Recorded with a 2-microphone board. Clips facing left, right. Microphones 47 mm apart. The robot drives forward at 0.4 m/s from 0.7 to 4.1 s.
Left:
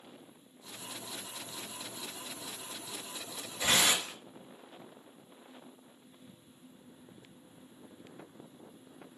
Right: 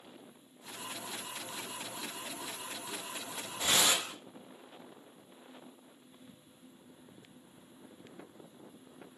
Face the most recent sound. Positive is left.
turn(degrees=55)  # may be behind; listen again after turning